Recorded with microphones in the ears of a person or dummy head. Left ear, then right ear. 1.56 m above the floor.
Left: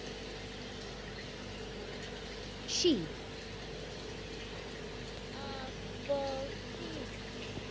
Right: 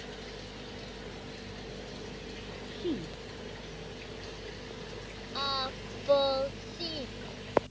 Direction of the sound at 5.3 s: 65° right (ahead or behind).